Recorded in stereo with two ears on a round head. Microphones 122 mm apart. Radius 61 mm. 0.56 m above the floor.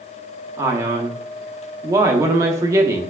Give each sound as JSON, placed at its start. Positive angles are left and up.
{"t": 0.6, "sound": "a man speaking", "side_deg": -25, "distance_m": 0.7}